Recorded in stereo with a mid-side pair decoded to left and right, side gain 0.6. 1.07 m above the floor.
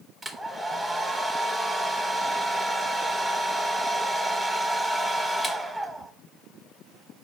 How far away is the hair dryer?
About 1.3 m.